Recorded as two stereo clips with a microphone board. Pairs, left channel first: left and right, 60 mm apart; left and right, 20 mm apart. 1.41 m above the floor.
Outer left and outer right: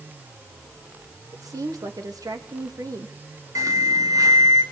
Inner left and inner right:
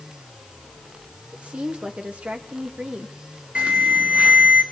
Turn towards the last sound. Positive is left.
turn(degrees=-75)  # may be behind; listen again after turning